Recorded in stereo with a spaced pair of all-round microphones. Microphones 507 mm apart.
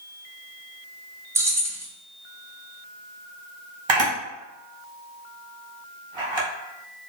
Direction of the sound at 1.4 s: 5° right (ahead or behind).